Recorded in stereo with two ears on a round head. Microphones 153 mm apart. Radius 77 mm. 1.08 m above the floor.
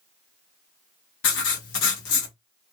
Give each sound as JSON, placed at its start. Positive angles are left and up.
{"t": 1.2, "sound": "writing", "side_deg": 85, "distance_m": 1.0}